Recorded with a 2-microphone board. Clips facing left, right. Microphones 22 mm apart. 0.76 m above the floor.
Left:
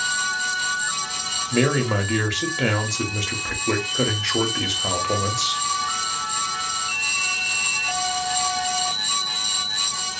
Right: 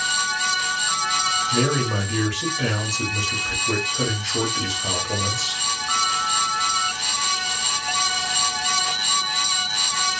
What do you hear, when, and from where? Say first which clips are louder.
1.5 s a man speaking: left 1 dB; 35° left (ahead or behind), 0.9 m